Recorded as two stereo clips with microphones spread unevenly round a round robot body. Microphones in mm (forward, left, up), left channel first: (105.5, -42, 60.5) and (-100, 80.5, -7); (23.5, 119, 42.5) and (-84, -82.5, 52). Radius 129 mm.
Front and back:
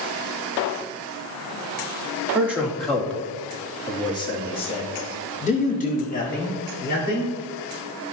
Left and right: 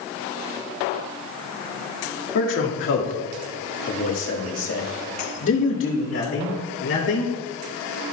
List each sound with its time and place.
2.4 s a man speaking: 75° left, 2 m; by 7.3 s 25° left, 3.5 m